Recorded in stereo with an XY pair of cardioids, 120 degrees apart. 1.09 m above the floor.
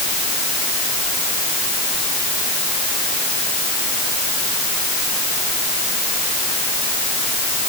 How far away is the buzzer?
No buzzer in this recording.